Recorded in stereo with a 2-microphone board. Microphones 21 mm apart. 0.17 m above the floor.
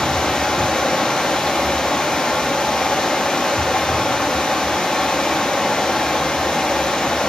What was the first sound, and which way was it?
Running water, 75° left (ahead or behind).